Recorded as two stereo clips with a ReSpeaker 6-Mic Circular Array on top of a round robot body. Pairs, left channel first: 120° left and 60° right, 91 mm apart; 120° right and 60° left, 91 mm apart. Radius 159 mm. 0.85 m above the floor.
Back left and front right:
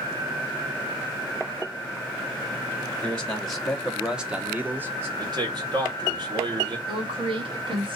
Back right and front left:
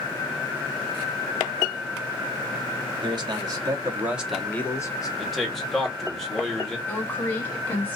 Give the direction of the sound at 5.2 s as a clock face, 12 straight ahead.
1 o'clock.